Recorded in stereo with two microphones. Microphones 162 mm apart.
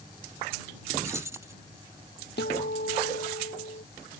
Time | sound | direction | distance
1.0 | keys jangling | 15° right (ahead or behind) | ?
2.4 | a guitar | 75° left (ahead or behind) | ?